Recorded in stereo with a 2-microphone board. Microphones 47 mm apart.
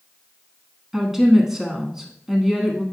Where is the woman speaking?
10° right (ahead or behind), 1.0 m.